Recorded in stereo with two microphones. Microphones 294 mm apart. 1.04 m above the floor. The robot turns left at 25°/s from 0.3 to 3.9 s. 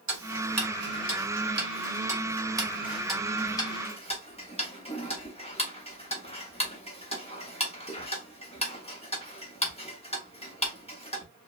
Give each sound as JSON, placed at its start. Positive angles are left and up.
{"t": 0.1, "sound": "ticking", "side_deg": -65, "distance_m": 0.7}